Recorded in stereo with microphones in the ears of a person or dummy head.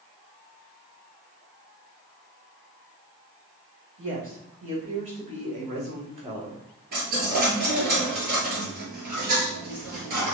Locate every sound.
4.0 s a woman speaking: 35° right (ahead or behind), 2 m; by 6.6 s 20° right (ahead or behind), 1.0 m
6.9 s a dropped coin: 45° right (ahead or behind), 1.9 m